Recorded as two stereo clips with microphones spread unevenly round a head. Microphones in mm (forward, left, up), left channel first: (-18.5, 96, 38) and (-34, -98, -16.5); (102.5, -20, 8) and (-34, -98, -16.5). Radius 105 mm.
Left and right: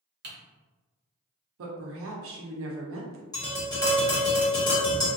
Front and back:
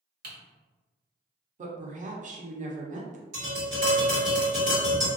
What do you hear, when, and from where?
0.2 s typing on a keyboard: 135° right, 1.0 m
1.6 s a woman speaking: 110° right, 0.7 m
3.3 s tapping: 150° left, 1.5 m